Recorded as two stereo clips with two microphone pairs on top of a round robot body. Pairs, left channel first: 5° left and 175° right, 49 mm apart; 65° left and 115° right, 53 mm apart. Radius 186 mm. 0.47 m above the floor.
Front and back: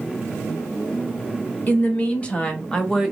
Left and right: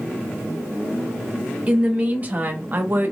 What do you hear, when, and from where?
1.7 s a woman speaking: 45° right, 1.4 m; by 3.1 s 90° right, 1.0 m